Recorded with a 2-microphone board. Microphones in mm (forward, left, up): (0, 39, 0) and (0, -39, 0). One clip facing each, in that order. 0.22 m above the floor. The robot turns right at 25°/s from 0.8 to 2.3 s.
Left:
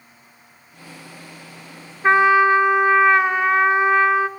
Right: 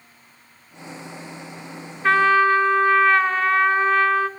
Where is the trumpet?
20° left (ahead or behind), 0.6 m; by 4.3 s 15° left (ahead or behind), 0.6 m.